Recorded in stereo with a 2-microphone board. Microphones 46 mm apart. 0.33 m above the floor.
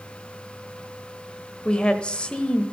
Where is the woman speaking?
25° left (ahead or behind), 1.0 m.